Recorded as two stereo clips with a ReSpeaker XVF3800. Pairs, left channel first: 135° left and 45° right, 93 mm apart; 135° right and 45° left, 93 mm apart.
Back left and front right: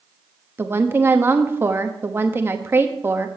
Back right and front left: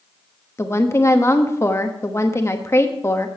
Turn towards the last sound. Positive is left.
turn(degrees=-95)